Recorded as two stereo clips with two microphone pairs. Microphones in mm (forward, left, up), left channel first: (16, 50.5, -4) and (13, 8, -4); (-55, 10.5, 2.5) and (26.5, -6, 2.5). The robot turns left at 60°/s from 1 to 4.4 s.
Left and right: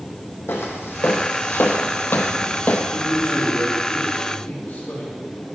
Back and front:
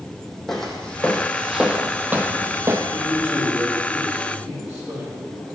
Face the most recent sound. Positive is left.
turn(degrees=55)